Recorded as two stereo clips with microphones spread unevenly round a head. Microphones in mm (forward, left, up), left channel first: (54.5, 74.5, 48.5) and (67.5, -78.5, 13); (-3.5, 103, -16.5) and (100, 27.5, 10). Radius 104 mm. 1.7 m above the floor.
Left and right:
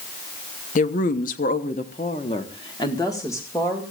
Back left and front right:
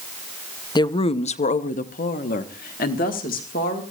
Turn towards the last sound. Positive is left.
turn(degrees=170)